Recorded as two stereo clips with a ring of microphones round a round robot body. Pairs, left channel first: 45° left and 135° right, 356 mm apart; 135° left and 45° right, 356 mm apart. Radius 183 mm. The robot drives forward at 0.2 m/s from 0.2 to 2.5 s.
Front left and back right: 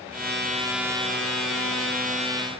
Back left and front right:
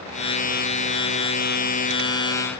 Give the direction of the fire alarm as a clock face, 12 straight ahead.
No fire alarm in this recording.